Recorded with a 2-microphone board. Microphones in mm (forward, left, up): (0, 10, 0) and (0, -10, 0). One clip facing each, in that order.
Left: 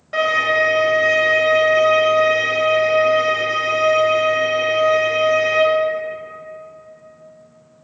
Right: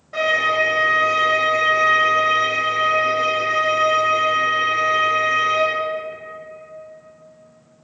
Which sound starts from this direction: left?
A violin, at 0.1 s.